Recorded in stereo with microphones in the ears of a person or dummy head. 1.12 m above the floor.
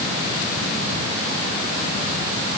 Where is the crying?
I don't hear crying.